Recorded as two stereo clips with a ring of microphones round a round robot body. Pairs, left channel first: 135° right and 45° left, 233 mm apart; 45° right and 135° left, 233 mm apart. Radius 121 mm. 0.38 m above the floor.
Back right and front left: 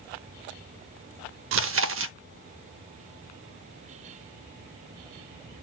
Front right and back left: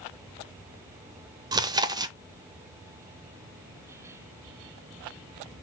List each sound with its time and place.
1.5 s chewing: 65° left, 0.6 m